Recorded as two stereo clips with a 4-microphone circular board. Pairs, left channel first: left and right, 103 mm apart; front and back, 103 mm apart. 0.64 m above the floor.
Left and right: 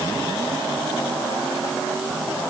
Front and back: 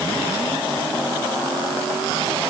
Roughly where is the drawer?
I don't hear a drawer.